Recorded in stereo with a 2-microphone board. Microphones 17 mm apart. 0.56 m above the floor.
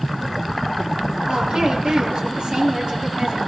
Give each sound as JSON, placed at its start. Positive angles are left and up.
{"t": 1.3, "sound": "a woman speaking", "side_deg": -60, "distance_m": 9.0}